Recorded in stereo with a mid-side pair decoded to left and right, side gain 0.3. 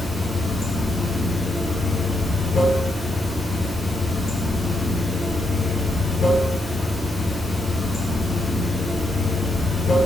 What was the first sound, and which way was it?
Running water, 50° left.